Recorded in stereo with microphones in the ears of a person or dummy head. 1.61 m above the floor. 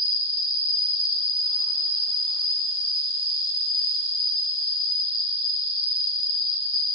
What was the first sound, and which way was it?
An insect, 5° left (ahead or behind).